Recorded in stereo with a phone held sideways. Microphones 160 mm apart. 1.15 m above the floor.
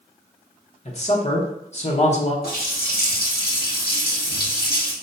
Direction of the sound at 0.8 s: 45° left (ahead or behind).